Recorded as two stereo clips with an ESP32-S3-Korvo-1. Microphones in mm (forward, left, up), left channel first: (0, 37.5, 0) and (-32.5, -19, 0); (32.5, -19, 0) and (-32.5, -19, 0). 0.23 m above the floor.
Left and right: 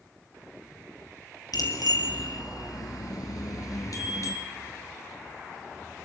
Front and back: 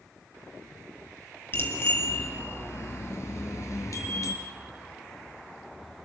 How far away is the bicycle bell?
About 3.5 m.